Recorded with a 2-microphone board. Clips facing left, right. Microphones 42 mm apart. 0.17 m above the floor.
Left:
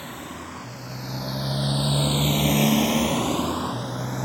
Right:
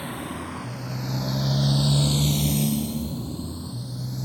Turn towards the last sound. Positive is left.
turn(degrees=55)  # may be behind; listen again after turning